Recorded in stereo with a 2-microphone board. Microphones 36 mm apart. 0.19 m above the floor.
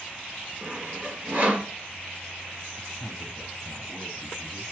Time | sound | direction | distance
0.6 | sawing | 50° right (ahead or behind) | 3.5 m
2.8 | a man speaking | centre (ahead or behind) | 1.3 m